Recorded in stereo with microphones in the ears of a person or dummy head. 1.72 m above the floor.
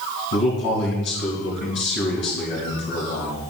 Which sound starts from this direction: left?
A man speaking, at 0.3 s.